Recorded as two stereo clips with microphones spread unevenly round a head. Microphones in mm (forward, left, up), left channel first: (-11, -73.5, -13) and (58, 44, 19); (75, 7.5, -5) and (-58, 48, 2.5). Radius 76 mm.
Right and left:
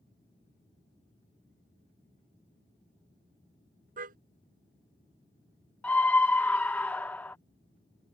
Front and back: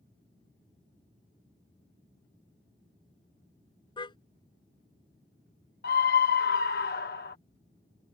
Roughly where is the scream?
Ahead right.